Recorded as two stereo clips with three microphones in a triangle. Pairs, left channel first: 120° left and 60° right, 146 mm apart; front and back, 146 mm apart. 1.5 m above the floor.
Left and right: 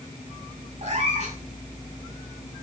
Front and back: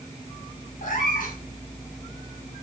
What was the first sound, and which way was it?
A cat meowing, 20° right.